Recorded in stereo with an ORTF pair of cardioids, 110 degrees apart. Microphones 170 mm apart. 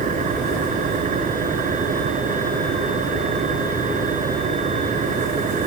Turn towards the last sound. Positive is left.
turn(degrees=-50)